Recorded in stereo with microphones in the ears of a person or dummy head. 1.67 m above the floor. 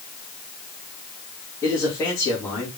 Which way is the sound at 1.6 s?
15° left (ahead or behind).